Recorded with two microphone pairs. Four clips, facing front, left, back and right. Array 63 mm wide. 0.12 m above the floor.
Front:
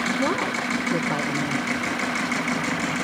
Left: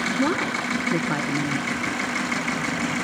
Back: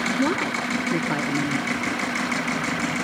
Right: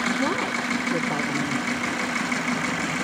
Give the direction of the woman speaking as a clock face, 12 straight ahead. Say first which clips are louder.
Left 1 dB, back 1 dB; 8 o'clock.